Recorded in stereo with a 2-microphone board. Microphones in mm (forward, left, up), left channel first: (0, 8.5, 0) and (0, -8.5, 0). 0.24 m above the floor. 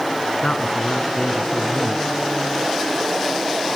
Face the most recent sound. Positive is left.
turn(degrees=65)  # may be behind; listen again after turning